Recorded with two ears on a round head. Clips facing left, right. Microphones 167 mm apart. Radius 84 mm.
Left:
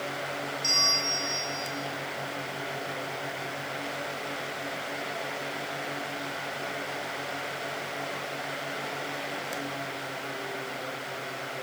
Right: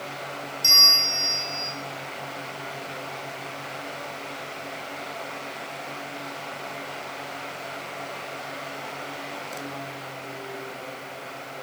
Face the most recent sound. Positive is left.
turn(degrees=-70)  # may be behind; listen again after turning